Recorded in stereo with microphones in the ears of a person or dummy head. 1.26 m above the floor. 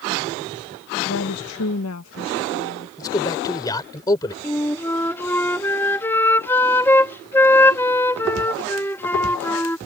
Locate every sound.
1.1 s a woman speaking: 65° left (ahead or behind); by 2.9 s 80° left
3.0 s a man speaking: 20° left (ahead or behind)
4.4 s a flute: 10° left (ahead or behind)